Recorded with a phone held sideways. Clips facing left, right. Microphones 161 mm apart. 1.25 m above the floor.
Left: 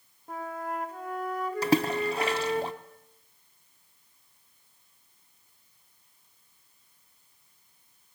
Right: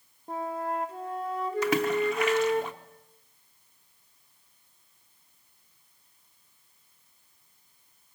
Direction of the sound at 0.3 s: 30° right (ahead or behind).